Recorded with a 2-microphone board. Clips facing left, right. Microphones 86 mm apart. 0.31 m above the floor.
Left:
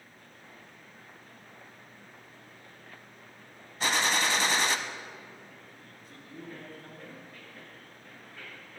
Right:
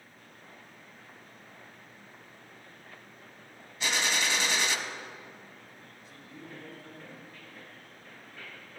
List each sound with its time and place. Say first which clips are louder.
3.8 s a gunshot: left 3 dB; 40° left (ahead or behind), 0.7 m
6.0 s a man speaking: left 4 dB; 45° left (ahead or behind), 2.5 m